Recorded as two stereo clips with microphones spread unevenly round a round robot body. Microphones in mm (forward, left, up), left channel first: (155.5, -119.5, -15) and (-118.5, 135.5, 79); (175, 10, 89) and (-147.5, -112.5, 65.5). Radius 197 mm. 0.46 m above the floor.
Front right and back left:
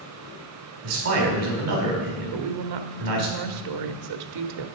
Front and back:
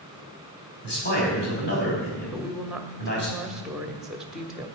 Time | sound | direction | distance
0.8 | a man speaking | 85° left | 4.5 m
2.3 | a woman speaking | 115° left | 1.2 m